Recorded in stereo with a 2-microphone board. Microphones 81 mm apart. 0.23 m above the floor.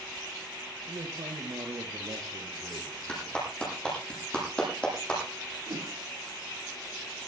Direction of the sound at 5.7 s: 55° right (ahead or behind).